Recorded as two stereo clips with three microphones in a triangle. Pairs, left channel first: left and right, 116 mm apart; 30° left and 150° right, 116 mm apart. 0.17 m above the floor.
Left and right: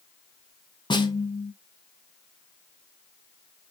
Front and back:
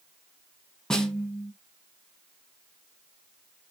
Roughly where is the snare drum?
Left.